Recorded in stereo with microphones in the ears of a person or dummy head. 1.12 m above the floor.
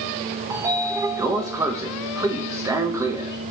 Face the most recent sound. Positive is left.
turn(degrees=-15)  # may be behind; listen again after turning